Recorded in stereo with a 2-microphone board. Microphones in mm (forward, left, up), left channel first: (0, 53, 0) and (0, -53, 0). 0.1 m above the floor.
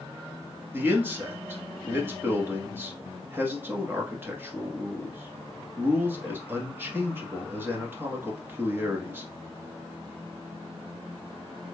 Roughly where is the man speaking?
Centre.